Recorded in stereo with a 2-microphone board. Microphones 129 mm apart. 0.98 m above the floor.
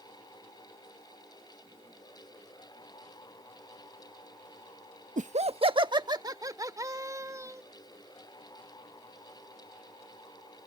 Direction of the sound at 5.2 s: 75° right (ahead or behind).